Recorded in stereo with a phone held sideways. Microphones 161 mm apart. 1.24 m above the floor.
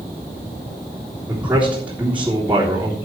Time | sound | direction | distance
1.3 | a man speaking | 10° right (ahead or behind) | 3.5 m